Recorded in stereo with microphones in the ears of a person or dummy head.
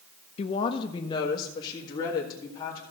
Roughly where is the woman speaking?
Left.